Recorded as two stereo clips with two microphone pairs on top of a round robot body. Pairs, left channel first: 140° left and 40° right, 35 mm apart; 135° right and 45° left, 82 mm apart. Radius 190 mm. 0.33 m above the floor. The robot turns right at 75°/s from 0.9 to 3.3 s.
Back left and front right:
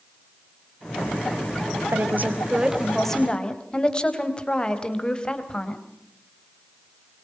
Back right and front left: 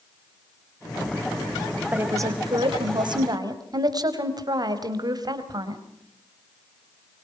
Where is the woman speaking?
25° right, 3.5 m; by 5.8 s 80° left, 3.5 m.